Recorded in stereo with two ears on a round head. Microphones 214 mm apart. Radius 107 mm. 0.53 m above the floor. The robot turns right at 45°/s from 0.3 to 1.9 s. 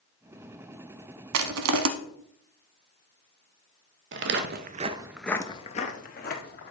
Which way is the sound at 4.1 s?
50° right (ahead or behind).